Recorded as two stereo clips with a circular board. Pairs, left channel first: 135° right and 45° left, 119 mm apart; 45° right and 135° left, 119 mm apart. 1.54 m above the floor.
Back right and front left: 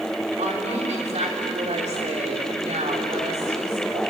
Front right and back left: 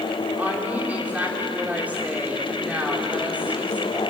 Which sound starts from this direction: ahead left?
A woman speaking, at 0.4 s.